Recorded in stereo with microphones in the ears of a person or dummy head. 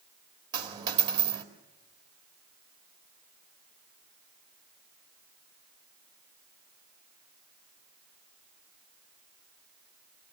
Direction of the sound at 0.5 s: 25° right (ahead or behind).